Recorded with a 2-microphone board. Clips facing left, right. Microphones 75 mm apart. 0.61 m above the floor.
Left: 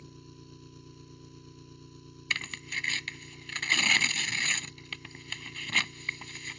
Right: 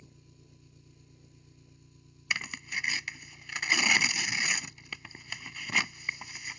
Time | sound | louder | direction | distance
0.0 | an engine running | left 8 dB | 75° left (ahead or behind) | ?
2.3 | tearing paper | right 1 dB | 10° right (ahead or behind) | ?